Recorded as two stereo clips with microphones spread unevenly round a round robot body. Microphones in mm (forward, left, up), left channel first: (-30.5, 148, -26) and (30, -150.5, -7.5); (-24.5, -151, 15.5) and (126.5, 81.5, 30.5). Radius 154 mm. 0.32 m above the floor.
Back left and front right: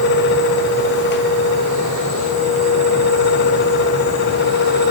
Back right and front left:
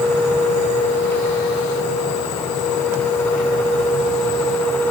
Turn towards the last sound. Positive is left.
No sound to turn to.